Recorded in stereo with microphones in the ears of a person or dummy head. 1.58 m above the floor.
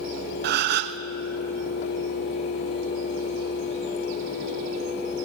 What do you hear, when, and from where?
0.4 s a gasp: 55° right (ahead or behind), 0.6 m